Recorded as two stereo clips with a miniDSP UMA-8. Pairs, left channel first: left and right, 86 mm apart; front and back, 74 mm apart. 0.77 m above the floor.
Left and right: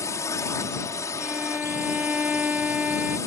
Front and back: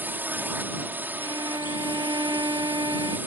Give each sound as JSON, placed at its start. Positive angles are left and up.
{"t": 0.0, "sound": "a drone", "azimuth_deg": 125}
{"t": 1.2, "sound": "a violin", "azimuth_deg": -165}